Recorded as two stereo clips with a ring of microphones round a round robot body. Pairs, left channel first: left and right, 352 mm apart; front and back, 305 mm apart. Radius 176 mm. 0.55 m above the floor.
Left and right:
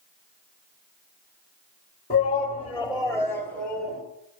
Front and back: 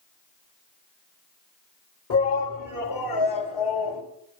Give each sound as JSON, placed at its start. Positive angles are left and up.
{"t": 2.1, "sound": "a shout", "azimuth_deg": 20, "distance_m": 2.0}